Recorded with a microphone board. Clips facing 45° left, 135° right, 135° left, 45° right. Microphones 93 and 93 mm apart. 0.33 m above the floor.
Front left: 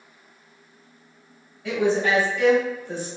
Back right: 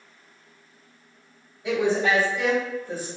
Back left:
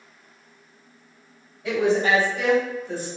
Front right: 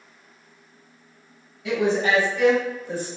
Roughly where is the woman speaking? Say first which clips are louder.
Front left 1 dB, back left 1 dB; behind.